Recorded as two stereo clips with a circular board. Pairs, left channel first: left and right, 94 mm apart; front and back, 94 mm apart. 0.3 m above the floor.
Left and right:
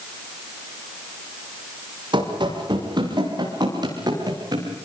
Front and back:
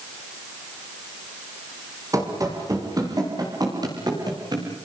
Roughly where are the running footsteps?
Behind right.